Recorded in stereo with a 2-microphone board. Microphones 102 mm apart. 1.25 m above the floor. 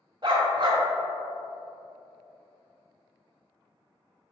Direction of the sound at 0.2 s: 45° right (ahead or behind).